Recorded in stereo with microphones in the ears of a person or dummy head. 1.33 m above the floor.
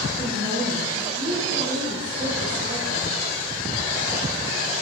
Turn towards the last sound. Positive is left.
turn(degrees=-80)